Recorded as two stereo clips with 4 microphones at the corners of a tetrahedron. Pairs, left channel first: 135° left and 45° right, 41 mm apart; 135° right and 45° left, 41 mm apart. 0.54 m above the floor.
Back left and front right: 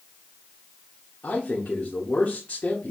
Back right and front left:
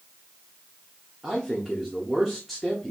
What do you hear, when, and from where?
1.2 s a man speaking: 130° left, 1.0 m